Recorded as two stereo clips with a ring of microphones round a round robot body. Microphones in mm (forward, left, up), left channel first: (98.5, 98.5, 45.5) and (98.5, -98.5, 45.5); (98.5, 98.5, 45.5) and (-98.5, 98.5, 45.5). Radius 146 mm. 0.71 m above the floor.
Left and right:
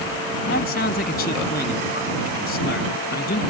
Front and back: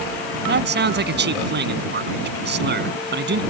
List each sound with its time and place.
0.5 s a man speaking: 150° left